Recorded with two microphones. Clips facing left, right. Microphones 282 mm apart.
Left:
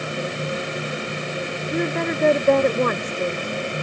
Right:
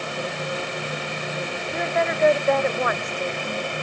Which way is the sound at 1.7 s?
45° left (ahead or behind).